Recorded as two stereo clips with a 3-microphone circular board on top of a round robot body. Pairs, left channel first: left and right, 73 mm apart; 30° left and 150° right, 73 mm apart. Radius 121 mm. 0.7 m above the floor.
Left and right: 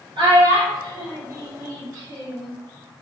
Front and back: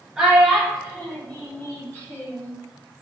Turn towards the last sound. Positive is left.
turn(degrees=-30)